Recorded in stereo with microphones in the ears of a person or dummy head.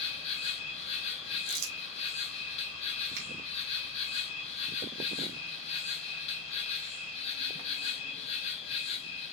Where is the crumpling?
80° right, 0.8 m.